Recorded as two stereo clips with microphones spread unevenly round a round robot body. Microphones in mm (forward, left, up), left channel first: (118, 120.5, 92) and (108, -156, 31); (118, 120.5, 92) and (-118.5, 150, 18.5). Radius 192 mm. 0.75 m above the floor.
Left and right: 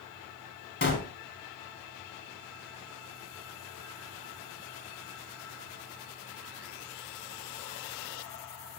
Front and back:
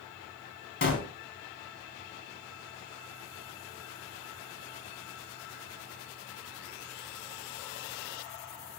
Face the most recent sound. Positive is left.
turn(degrees=35)